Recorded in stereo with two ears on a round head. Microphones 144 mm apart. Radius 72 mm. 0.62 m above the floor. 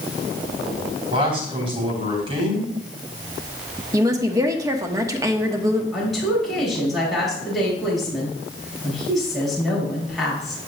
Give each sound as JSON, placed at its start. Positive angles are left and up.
{"t": 1.1, "sound": "a man speaking", "side_deg": -35, "distance_m": 3.5}
{"t": 3.9, "sound": "a woman speaking", "side_deg": -20, "distance_m": 1.0}
{"t": 5.9, "sound": "a woman speaking", "side_deg": 0, "distance_m": 5.0}